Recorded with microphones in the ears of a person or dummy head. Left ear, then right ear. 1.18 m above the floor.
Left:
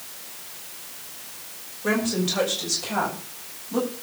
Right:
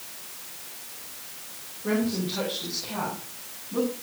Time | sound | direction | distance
1.8 | a woman speaking | 75° left (ahead or behind) | 5.5 m